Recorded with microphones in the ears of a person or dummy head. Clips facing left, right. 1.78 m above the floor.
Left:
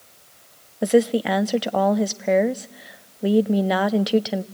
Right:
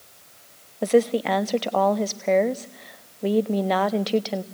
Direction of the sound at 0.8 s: 10° left (ahead or behind).